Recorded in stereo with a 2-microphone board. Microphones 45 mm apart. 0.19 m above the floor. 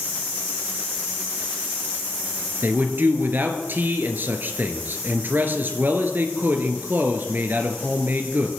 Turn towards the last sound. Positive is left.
turn(degrees=-50)  # may be behind; listen again after turning